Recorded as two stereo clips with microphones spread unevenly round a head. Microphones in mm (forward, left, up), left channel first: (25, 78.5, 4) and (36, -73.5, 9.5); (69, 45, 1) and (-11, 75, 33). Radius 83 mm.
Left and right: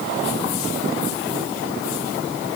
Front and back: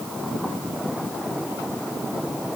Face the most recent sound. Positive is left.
No sound to turn to.